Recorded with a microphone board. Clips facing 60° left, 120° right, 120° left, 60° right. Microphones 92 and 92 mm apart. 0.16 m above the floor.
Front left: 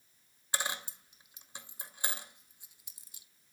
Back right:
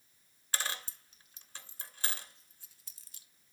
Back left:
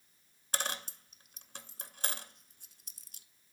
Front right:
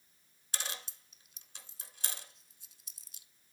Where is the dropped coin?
130° left, 0.8 m.